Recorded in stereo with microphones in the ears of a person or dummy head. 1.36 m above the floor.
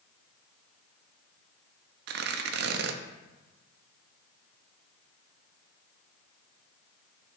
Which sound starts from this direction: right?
Tearing paper, at 2.1 s.